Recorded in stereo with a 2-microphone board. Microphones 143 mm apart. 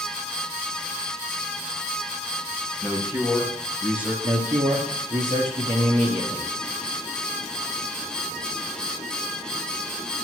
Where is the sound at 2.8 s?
10° right (ahead or behind), 1.5 m.